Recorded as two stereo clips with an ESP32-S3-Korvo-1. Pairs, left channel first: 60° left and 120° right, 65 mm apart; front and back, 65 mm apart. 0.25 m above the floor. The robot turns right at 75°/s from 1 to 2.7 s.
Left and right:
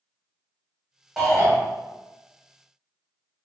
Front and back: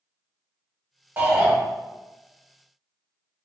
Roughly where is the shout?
Behind left.